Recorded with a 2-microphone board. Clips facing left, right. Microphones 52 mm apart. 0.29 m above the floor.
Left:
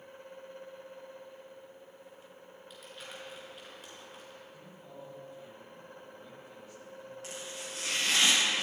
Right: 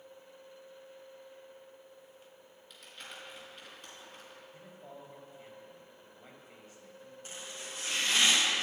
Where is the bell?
No bell in this recording.